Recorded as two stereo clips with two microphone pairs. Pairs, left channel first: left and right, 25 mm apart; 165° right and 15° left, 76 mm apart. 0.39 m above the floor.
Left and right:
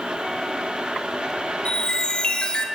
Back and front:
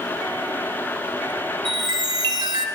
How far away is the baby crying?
No baby crying in this recording.